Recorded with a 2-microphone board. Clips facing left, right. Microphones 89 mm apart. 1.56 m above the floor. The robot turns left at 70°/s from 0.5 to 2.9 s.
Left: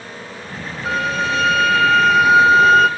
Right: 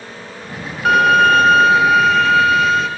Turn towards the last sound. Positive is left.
turn(degrees=125)